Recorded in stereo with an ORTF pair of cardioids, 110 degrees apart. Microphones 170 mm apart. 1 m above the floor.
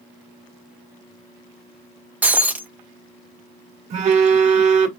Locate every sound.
2.2 s breaking glass: 10° right, 0.5 m
3.9 s a phone buzzing: 40° right, 1.3 m